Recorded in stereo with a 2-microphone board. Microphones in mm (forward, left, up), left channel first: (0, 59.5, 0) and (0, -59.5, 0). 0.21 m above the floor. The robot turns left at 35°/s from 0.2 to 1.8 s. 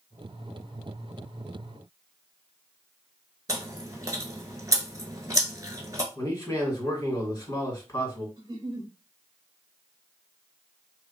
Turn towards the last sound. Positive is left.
turn(degrees=-45)  # may be behind; listen again after turning